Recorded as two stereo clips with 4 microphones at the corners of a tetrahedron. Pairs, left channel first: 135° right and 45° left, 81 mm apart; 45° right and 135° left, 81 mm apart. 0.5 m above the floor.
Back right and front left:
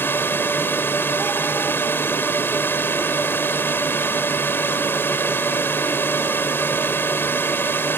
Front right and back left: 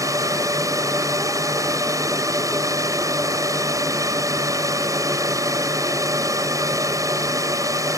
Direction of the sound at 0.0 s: 170° left.